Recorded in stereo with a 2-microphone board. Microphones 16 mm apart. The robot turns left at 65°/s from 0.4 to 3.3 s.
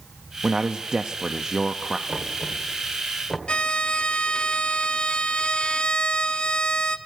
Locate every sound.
0.4 s a man speaking: 50° right, 0.6 m; by 2.0 s 155° right, 0.6 m
2.1 s knocking: 50° right (ahead or behind), 1.8 m; by 3.4 s 30° left (ahead or behind), 1.8 m
3.5 s a violin: 60° left (ahead or behind), 0.6 m